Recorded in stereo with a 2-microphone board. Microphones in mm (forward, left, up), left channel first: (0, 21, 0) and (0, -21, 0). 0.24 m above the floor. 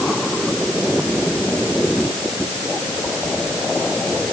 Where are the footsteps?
I don't hear footsteps.